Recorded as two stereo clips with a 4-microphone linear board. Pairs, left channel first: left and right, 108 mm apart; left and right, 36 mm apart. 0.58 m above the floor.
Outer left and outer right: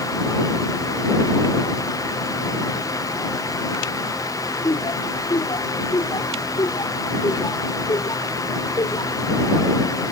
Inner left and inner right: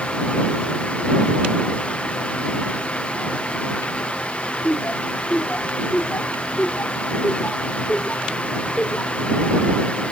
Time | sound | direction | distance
4.6 | laughter | 45° left (ahead or behind) | ?